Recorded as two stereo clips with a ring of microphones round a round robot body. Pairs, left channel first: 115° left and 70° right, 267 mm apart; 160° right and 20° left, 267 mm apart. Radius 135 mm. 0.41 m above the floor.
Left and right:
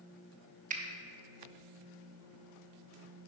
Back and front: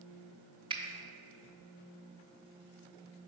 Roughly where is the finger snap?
Ahead right.